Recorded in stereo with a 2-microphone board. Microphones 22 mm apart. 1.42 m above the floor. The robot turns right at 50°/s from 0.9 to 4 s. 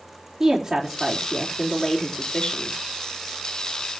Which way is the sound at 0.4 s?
20° right.